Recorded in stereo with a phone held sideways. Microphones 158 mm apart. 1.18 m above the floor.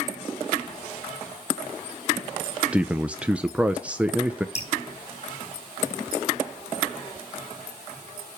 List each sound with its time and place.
2.7 s a man speaking: 10° right (ahead or behind), 0.6 m
4.5 s dripping: 45° left (ahead or behind), 3.5 m